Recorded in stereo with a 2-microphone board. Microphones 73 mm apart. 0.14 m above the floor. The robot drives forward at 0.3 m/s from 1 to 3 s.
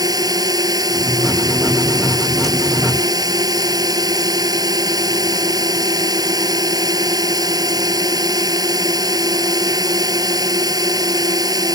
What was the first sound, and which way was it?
A drone, 60° right (ahead or behind).